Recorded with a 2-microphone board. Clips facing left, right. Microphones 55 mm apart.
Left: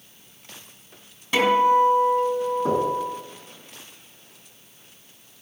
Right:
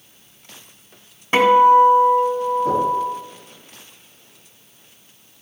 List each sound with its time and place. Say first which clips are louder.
1.3 s a guitar: right 6 dB; 35° right (ahead or behind), 2 m
2.6 s knocking: right 3 dB; 75° left (ahead or behind), 4.5 m